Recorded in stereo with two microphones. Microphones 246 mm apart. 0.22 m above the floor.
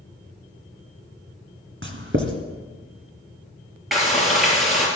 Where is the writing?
55° right (ahead or behind), 1.7 m.